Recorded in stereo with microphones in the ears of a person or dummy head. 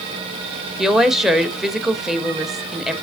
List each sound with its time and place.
0.8 s a woman speaking: centre (ahead or behind), 1.1 m